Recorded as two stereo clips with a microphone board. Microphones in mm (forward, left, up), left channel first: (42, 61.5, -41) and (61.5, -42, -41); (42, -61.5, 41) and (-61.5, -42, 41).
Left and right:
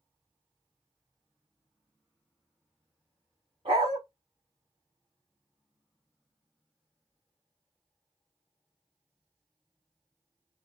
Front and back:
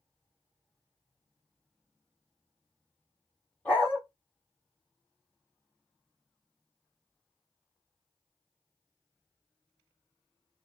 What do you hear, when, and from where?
3.6 s a dog barking: 85° right, 1.9 m